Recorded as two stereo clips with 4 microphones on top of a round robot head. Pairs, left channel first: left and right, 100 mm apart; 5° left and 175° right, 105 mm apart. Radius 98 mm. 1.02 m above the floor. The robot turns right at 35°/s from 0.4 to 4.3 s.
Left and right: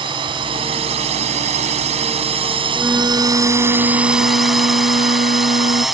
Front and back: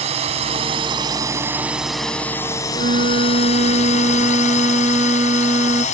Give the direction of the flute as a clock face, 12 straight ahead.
6 o'clock.